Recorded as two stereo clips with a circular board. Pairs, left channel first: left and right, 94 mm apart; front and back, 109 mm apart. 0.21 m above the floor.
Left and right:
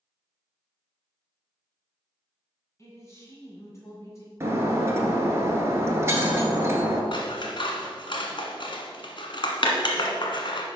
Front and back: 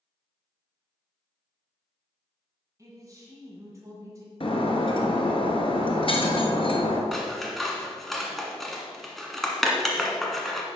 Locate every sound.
2.8 s a man speaking: 130° left, 1.9 m
4.4 s breaking glass: 30° right, 1.3 m
7.1 s scissors: 85° left, 1.2 m